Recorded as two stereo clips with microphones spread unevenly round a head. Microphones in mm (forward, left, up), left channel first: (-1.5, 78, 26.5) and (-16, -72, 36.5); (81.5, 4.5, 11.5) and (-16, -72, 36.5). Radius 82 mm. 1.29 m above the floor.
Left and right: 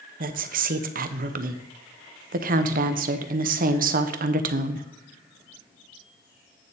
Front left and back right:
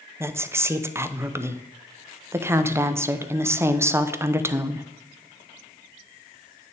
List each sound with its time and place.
0.2 s a woman speaking: 65° right, 0.8 m